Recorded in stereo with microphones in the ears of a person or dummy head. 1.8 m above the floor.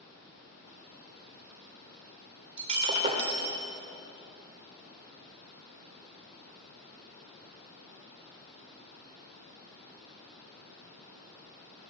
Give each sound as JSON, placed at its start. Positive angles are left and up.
{"t": 2.6, "sound": "breaking glass", "side_deg": -35, "distance_m": 2.0}